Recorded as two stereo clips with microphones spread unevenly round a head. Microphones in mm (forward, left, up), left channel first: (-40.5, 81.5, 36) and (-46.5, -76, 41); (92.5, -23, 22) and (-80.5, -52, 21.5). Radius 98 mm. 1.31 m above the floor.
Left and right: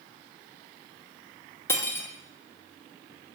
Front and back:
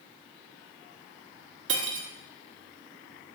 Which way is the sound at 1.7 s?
160° left.